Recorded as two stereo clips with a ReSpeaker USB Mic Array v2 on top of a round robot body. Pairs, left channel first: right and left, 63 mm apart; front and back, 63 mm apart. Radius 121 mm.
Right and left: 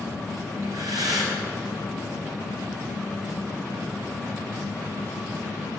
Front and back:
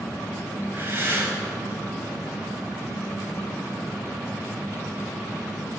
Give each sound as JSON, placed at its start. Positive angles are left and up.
{"t": 0.6, "sound": "breathing", "azimuth_deg": 120, "distance_m": 3.0}